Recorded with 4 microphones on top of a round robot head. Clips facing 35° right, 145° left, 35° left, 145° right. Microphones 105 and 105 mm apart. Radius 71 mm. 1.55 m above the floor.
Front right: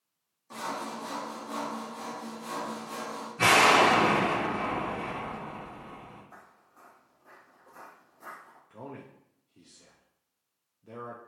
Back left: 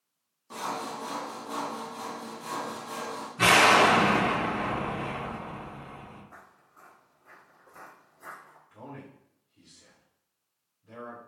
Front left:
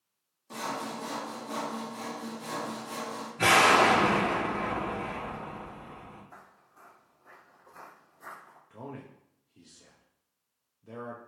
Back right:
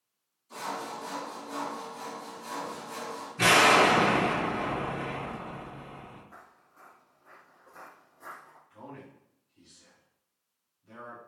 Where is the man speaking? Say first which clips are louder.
Front right 1 dB, front left 3 dB; 5° right, 0.6 m.